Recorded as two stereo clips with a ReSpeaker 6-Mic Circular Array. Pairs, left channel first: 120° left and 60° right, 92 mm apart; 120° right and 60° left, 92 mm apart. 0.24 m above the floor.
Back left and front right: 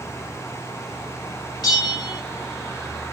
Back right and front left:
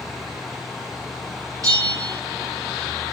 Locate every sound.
1.6 s a bell: 95° left, 1.5 m